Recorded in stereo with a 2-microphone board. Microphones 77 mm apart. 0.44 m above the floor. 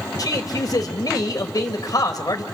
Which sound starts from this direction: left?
A man speaking, at 0.2 s.